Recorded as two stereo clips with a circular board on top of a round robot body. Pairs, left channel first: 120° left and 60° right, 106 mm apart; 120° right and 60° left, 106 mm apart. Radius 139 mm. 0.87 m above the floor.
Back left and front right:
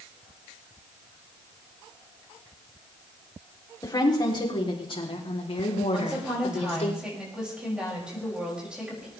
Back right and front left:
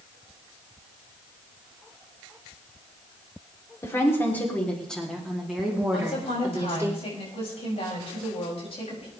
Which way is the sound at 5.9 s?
140° right.